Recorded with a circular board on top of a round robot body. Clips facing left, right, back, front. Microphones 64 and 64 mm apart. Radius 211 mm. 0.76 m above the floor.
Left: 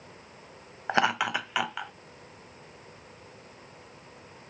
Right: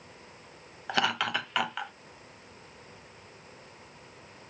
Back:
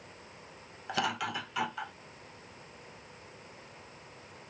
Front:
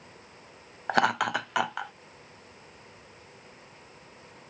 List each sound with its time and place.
0.9 s laughter: 35° left, 0.5 m; by 1.9 s straight ahead, 1.0 m